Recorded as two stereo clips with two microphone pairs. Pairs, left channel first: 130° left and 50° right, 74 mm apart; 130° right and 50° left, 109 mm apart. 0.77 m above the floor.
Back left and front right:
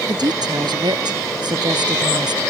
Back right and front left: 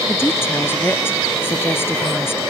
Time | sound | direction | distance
0.1 | a woman speaking | 60° right | ?